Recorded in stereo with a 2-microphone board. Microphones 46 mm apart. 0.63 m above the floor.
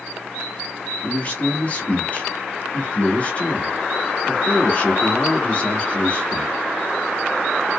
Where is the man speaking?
35° left (ahead or behind), 1.2 m.